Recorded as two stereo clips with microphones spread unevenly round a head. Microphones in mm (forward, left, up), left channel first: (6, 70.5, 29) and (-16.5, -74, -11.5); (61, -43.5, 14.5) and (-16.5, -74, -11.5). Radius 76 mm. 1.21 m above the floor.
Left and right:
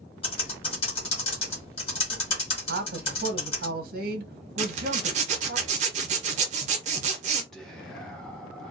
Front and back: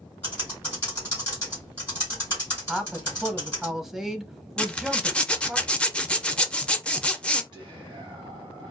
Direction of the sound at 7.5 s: 175° left.